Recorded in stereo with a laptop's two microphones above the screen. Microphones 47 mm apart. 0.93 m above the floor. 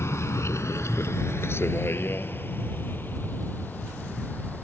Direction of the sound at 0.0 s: 70° left (ahead or behind).